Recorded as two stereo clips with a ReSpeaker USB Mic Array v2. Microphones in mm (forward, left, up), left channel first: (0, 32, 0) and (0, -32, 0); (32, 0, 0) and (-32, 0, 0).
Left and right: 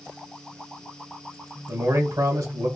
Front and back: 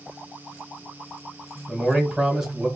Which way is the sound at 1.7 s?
95° right.